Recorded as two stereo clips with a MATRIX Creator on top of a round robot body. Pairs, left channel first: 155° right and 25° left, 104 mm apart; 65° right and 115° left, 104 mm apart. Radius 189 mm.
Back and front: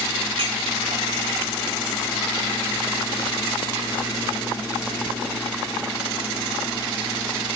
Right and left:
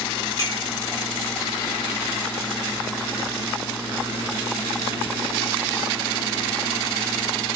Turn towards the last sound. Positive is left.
turn(degrees=-10)